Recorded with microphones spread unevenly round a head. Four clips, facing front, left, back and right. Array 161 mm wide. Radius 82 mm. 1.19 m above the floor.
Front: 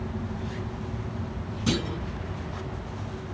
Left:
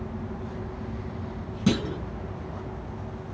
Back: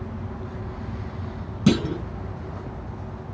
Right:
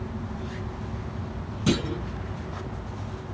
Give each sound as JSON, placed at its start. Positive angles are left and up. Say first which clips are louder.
{"t": 1.7, "sound": "a clunk", "louder": "even, back 8 dB", "azimuth_deg": 175, "distance_m": 1.0}